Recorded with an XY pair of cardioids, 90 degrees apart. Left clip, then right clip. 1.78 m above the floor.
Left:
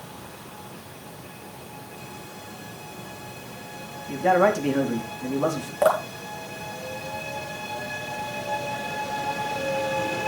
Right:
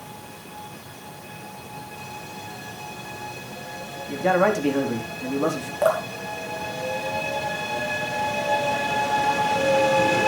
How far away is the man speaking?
About 4.5 m.